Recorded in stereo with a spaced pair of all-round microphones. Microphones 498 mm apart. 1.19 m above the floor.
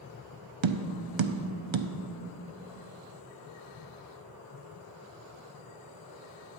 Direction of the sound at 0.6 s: 65° right (ahead or behind).